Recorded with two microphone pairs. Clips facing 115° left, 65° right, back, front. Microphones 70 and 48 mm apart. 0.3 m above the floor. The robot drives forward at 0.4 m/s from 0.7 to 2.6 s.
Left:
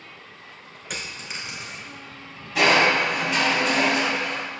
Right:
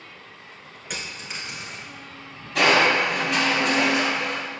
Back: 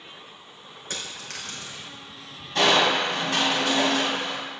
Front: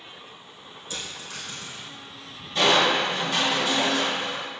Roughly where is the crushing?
Behind right.